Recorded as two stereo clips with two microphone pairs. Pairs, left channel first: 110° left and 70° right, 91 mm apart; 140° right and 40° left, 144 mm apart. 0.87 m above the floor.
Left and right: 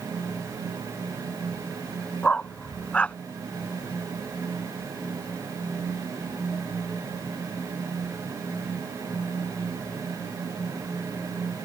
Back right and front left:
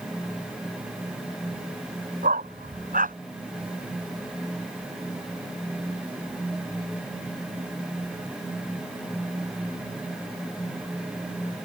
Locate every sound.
2.2 s a dog barking: 35° left